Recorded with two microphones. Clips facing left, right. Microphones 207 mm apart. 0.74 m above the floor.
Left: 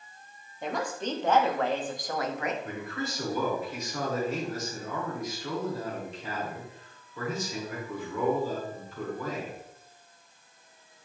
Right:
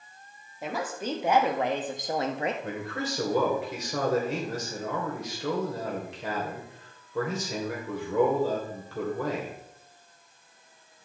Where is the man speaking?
70° right (ahead or behind), 2.5 m.